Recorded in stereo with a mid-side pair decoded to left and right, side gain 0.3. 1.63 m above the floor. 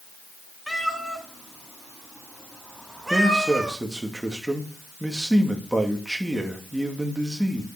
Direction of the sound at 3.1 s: 15° right.